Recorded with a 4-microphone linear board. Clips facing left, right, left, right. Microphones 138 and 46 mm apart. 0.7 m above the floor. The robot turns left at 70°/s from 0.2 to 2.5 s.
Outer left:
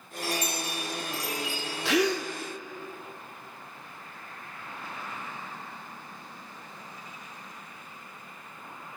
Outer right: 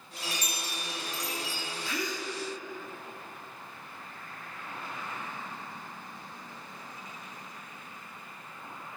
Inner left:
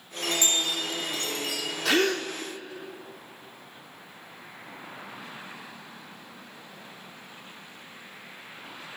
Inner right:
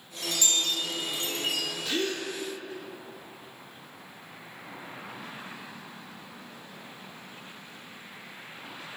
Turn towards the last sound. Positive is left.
turn(degrees=40)